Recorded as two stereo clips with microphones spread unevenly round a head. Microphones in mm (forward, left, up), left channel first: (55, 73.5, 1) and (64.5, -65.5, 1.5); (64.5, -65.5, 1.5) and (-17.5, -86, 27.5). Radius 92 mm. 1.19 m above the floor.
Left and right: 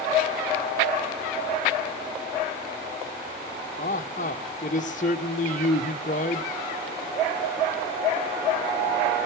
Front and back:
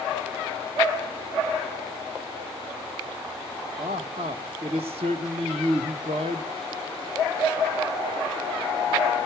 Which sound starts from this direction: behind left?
A man speaking, at 3.8 s.